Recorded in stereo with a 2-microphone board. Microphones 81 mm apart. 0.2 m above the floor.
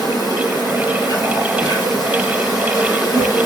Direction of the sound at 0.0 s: 70° left (ahead or behind).